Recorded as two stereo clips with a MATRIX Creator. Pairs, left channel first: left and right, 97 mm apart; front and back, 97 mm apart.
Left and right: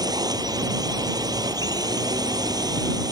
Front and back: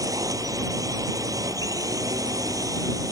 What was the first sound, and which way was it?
A drone, 130° right.